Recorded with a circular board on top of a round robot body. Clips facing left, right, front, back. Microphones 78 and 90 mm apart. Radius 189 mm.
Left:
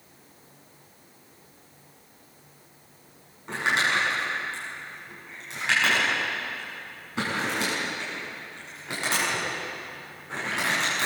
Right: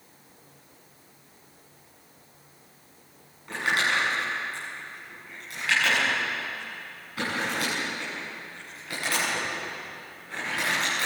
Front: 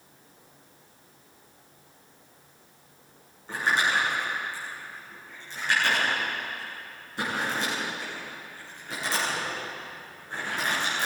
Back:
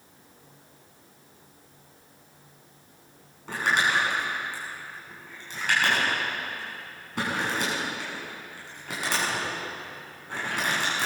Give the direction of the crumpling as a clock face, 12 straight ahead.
7 o'clock.